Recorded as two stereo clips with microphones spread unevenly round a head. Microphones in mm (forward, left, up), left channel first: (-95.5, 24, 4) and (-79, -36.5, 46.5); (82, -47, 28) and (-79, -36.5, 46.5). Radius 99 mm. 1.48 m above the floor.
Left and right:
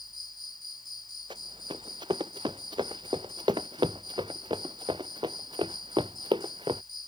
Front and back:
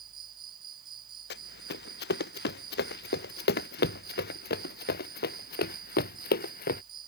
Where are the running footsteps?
20° right; by 6.8 s 35° right.